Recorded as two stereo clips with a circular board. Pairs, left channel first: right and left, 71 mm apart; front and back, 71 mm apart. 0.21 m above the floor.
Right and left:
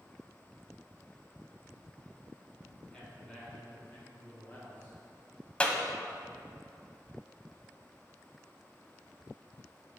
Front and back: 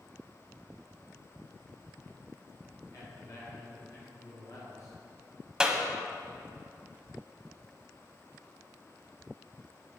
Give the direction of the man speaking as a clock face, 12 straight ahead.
12 o'clock.